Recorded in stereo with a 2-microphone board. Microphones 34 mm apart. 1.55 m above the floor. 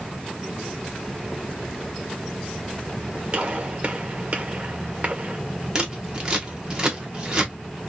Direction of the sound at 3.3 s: 40° right (ahead or behind).